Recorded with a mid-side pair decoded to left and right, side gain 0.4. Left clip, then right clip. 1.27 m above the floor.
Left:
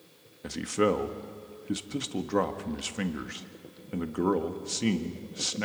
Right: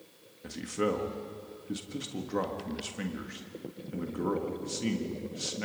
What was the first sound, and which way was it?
A man speaking, 45° left.